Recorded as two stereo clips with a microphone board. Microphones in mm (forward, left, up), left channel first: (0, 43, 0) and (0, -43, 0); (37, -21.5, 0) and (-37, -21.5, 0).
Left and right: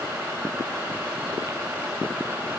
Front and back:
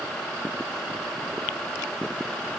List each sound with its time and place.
Only background noise.